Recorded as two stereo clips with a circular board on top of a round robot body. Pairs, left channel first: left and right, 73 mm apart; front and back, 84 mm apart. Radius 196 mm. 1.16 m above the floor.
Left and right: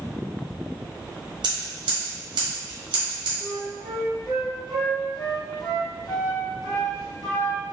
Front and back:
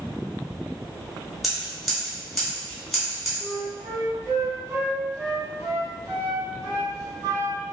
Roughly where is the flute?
Behind left.